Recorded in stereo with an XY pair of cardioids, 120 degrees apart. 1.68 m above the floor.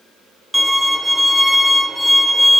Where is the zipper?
No zipper in this recording.